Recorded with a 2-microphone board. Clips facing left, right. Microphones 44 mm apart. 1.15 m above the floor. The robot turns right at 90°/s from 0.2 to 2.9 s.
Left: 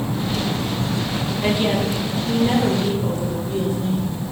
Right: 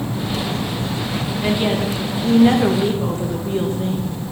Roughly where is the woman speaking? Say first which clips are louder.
Even; behind.